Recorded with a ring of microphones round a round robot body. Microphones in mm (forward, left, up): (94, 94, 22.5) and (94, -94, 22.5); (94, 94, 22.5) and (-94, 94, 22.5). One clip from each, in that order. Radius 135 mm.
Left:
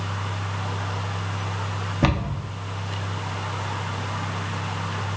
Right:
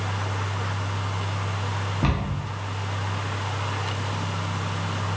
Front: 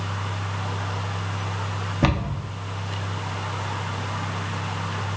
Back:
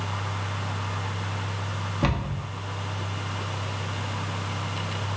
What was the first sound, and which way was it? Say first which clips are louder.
A cupboard door: left 6 dB, front 4 dB; 65° left.